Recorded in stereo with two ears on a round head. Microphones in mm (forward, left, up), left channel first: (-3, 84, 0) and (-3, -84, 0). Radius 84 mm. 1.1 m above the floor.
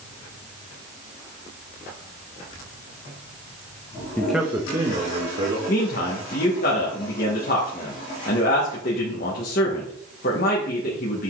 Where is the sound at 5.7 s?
50° left (ahead or behind), 1.4 m.